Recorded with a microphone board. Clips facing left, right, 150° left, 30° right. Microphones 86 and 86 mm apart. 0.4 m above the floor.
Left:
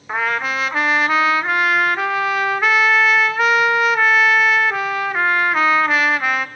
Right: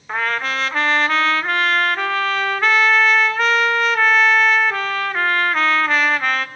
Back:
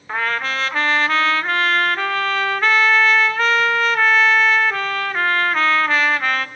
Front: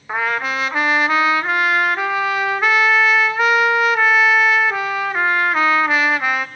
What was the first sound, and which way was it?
A trumpet, 25° left.